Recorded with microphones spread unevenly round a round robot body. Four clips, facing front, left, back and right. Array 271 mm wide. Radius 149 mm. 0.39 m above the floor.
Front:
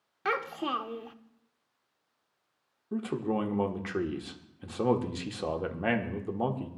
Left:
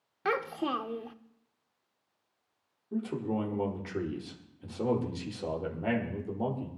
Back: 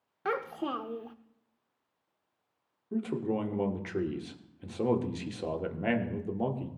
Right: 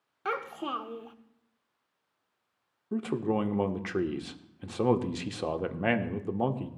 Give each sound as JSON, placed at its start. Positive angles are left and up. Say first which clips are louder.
{"t": 0.2, "sound": "a child speaking", "louder": "left 3 dB, front 1 dB", "azimuth_deg": 105, "distance_m": 0.7}
{"t": 2.9, "sound": "a man speaking", "louder": "right 3 dB, front 1 dB", "azimuth_deg": -85, "distance_m": 1.3}